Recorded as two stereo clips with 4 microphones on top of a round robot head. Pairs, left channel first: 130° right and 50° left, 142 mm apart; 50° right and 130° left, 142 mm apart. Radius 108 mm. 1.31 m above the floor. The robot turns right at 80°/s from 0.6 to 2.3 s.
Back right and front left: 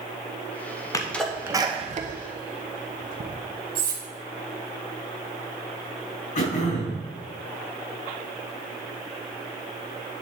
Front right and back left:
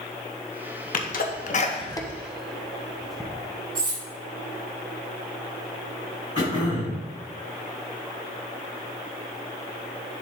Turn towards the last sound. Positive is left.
turn(degrees=-110)